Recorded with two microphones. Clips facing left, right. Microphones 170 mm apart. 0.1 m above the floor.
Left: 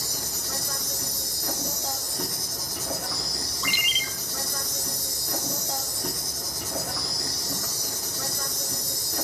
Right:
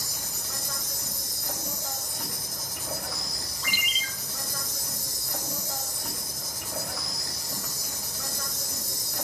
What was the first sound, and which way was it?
An insect, 70° left (ahead or behind).